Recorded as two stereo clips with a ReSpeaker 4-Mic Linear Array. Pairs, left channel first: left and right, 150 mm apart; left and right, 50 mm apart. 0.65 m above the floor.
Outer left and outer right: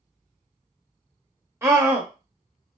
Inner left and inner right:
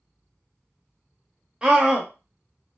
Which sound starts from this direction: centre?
A scream, at 1.6 s.